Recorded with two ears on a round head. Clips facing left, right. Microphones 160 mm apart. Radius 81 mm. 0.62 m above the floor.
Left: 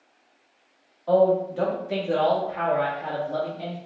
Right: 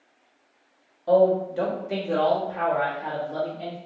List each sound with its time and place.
1.1 s a man speaking: 25° right (ahead or behind), 1.2 m; by 3.8 s 40° left (ahead or behind), 1.6 m